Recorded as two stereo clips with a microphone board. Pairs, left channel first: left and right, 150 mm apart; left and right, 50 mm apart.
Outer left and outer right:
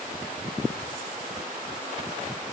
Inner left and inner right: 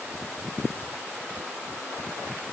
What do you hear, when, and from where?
Only background noise.